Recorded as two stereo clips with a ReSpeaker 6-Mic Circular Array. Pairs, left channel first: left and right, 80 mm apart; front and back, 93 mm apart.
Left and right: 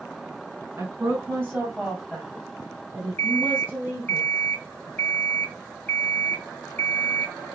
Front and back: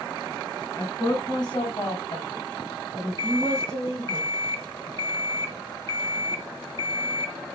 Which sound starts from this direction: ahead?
An alarm clock, at 3.2 s.